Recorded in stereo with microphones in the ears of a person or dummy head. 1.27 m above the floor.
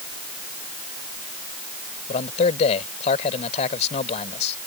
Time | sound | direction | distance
2.1 | a man speaking | 45° left (ahead or behind) | ?